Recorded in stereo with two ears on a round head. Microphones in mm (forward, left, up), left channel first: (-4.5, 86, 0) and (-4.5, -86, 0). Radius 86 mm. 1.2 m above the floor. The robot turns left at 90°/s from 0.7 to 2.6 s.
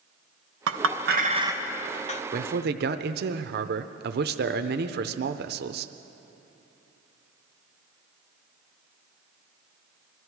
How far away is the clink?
About 0.7 m.